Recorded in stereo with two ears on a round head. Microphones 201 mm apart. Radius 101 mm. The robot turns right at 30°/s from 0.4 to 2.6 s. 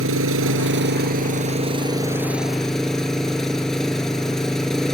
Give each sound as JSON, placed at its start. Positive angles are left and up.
{"t": 0.0, "sound": "an engine running", "azimuth_deg": -65}